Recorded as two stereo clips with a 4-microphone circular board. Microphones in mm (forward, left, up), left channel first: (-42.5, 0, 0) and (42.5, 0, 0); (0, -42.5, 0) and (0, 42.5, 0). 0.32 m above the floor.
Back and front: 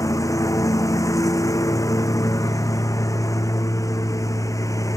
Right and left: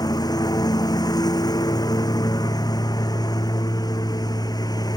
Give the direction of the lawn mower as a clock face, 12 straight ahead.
4 o'clock.